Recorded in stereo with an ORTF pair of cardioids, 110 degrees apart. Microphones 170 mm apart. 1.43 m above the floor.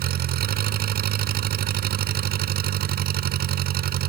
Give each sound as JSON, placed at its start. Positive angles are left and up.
{"t": 0.0, "sound": "an engine running", "azimuth_deg": -65}